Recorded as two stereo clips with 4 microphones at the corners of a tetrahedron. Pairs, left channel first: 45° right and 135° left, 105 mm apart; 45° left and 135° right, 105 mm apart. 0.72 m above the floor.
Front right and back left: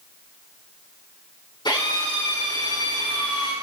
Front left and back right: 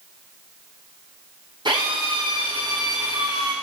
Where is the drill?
95° right, 6.5 m.